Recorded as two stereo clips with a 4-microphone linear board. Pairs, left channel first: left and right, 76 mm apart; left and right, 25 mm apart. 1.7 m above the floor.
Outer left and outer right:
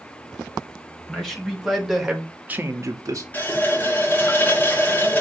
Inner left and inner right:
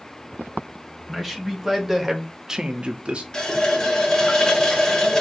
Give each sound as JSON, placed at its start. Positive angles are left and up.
{"t": 1.1, "sound": "a man speaking", "side_deg": 10, "distance_m": 1.9}
{"t": 3.3, "sound": "a running tap", "side_deg": 25, "distance_m": 0.8}